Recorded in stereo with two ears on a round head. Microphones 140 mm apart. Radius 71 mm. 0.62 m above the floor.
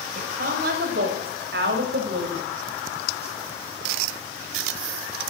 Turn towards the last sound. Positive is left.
turn(degrees=-60)  # may be behind; listen again after turning